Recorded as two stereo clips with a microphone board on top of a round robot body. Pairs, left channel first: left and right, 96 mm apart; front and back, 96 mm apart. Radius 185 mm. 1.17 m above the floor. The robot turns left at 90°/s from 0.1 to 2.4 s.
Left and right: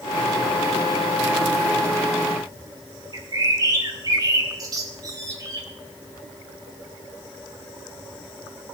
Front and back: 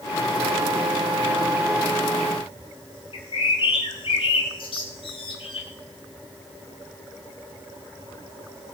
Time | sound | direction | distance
3.1 | a bird | 35° right | 1.0 m